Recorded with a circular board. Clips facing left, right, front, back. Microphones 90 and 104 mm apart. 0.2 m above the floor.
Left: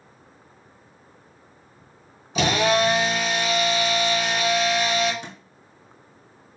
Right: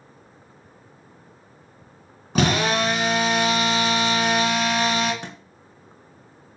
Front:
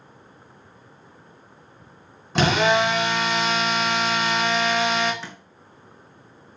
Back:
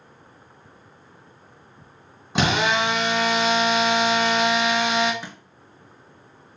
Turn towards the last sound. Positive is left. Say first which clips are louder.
# right 2 dB, even
turn(degrees=-105)